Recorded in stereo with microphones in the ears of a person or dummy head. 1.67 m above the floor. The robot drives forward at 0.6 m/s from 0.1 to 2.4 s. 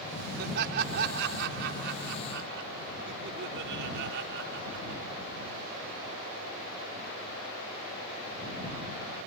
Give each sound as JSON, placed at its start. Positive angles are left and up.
{"t": 0.4, "sound": "laughter", "side_deg": -55}